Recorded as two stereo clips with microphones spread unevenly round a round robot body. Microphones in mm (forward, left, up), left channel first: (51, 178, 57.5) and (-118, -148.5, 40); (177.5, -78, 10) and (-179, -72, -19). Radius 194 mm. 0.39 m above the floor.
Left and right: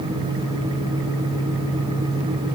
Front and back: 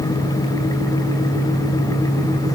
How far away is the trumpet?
No trumpet in this recording.